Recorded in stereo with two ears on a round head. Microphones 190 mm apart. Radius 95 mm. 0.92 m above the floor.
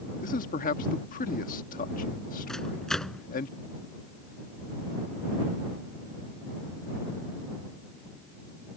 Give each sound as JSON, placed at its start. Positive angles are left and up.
{"t": 0.2, "sound": "a man speaking", "side_deg": 40}
{"t": 2.5, "sound": "a microwave", "side_deg": 5}